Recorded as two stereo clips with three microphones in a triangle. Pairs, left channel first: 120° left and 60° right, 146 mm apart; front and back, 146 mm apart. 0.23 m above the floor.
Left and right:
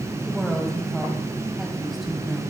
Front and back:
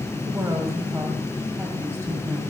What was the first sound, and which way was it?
A woman speaking, 150° right.